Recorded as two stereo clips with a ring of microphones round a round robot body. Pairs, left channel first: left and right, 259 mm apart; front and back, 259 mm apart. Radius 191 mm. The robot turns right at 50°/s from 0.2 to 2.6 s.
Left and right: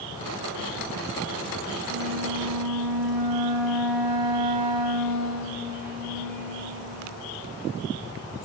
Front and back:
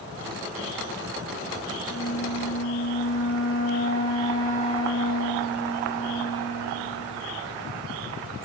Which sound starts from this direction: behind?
A flute, at 1.9 s.